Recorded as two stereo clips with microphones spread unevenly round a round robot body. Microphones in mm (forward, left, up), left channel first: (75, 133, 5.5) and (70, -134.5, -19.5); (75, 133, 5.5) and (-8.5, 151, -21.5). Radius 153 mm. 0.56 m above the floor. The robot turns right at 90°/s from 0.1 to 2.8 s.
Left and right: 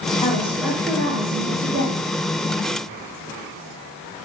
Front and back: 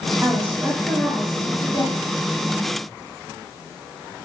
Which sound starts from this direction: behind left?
A woman speaking, at 0.2 s.